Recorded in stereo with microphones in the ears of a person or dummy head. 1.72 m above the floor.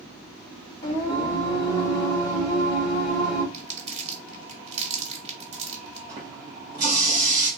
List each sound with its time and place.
0.8 s singing: 15° left (ahead or behind), 0.9 m
3.5 s crumpling: 35° right (ahead or behind), 1.0 m
6.1 s a running tap: 35° right (ahead or behind), 1.1 m